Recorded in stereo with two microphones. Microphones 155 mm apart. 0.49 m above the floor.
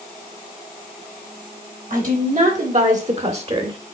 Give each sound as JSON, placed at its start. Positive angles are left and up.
{"t": 1.9, "sound": "a woman speaking", "side_deg": -60, "distance_m": 2.5}